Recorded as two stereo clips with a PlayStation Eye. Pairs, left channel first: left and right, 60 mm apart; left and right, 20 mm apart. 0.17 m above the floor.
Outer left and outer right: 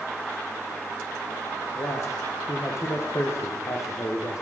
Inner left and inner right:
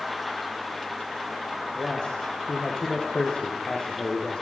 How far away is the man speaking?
About 8.5 m.